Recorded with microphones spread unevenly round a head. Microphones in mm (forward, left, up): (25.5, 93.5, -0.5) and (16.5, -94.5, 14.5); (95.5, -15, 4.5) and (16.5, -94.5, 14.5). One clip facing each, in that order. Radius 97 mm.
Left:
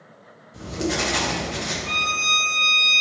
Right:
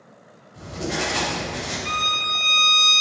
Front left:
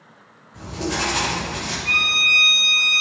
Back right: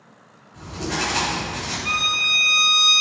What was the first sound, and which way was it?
Writing, 115° left.